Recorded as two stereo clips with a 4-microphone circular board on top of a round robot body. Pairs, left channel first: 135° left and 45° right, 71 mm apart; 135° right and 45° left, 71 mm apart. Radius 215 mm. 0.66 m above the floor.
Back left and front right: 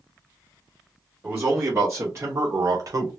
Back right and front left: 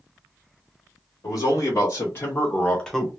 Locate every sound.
1.2 s a man speaking: 110° right, 1.8 m; by 3.1 s 40° right, 1.0 m